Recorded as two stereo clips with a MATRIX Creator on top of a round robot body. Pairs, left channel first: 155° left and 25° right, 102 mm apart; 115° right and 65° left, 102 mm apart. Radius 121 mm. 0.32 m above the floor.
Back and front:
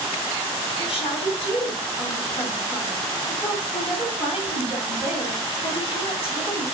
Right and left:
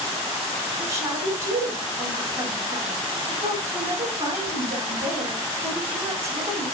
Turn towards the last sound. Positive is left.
turn(degrees=125)